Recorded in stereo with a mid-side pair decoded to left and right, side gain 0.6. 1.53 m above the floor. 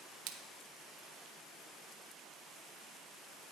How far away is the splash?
About 0.9 m.